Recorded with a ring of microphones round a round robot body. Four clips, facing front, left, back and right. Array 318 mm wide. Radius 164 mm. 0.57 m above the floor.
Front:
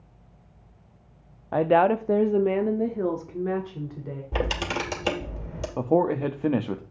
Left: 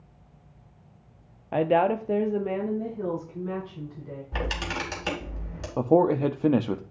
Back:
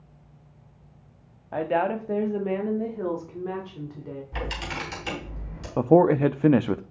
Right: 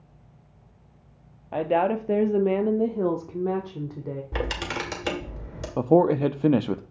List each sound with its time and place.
1.5 s a woman speaking: 30° left, 0.8 m; by 4.2 s 75° right, 1.9 m
4.3 s a camera shutter: 30° right, 2.5 m
5.8 s a man speaking: 160° right, 0.6 m